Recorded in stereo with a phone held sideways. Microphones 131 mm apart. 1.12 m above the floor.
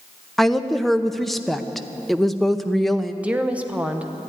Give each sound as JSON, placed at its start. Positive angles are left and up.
{"t": 0.4, "sound": "a woman speaking", "side_deg": 0, "distance_m": 0.7}
{"t": 3.2, "sound": "a woman speaking", "side_deg": -10, "distance_m": 1.1}